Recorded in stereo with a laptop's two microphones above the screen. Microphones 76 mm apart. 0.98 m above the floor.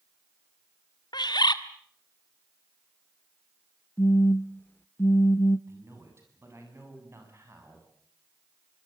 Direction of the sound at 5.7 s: 35° right (ahead or behind).